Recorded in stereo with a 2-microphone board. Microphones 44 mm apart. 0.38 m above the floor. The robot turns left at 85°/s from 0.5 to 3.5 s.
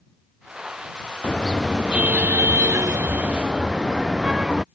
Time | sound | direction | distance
1.2 | a car horn | 30° left | ?